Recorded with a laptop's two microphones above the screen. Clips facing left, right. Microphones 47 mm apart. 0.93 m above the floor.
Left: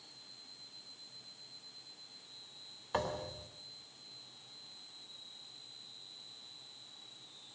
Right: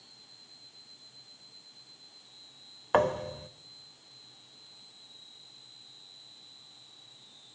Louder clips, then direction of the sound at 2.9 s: Right 11 dB; 55° right (ahead or behind).